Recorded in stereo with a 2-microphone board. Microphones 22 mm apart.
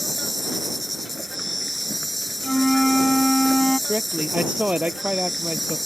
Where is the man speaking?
75° right (ahead or behind).